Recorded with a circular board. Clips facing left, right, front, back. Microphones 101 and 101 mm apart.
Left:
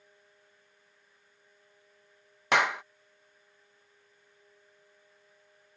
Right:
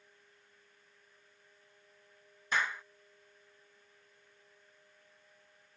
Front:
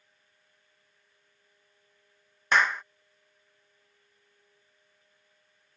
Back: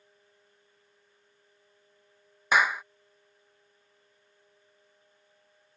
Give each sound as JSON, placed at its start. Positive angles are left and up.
{"t": 2.5, "sound": "a clap", "azimuth_deg": 100}